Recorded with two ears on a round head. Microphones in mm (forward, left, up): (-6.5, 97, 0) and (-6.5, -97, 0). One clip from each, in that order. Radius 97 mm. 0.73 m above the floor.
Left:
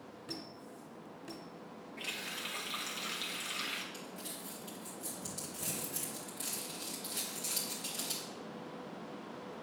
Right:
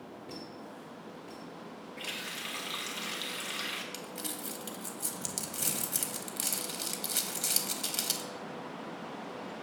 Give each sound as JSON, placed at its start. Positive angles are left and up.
{"t": 0.3, "sound": "a squeak", "side_deg": 60, "distance_m": 1.5}
{"t": 2.0, "sound": "a running tap", "side_deg": -5, "distance_m": 0.9}
{"t": 3.9, "sound": "crumpling", "side_deg": -60, "distance_m": 0.8}